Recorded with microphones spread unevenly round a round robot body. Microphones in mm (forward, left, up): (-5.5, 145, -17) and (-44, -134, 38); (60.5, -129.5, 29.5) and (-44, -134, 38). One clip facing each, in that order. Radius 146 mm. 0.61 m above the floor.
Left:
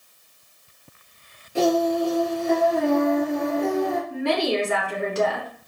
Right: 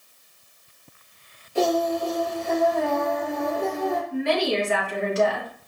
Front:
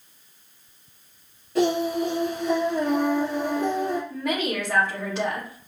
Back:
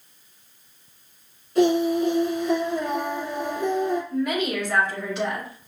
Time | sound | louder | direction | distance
1.6 | singing | left 3 dB, back 3 dB | 50° left | 2.5 m
4.1 | a woman speaking | right 1 dB, back 2 dB | 50° left | 2.0 m